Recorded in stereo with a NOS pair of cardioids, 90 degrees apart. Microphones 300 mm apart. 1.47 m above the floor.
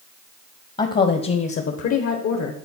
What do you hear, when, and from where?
0.8 s a woman speaking: 25° left, 0.8 m; by 2.5 s 70° left, 1.2 m